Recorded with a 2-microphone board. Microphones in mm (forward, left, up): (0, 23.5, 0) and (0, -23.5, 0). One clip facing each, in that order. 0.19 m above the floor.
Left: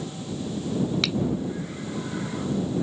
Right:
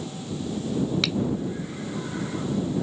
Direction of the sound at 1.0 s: Centre (ahead or behind).